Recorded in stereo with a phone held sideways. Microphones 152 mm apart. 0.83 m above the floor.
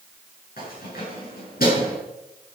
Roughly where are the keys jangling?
Left.